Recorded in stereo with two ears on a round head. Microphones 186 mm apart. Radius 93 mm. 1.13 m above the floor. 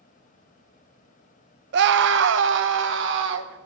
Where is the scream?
60° right (ahead or behind), 0.6 m; by 3.6 s 65° right (ahead or behind), 1.7 m.